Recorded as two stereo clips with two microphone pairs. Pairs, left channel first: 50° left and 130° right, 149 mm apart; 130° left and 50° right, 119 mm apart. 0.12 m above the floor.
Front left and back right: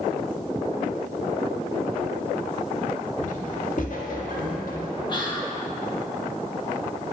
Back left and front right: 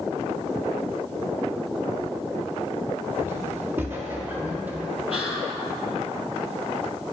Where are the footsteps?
15° left, 3.5 m; by 5.0 s 25° left, 4.5 m.